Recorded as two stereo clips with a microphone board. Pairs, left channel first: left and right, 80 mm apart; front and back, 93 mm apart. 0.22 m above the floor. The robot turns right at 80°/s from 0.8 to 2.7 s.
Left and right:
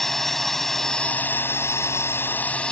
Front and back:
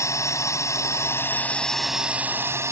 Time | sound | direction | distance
0.0 | a drone | 5° left | ?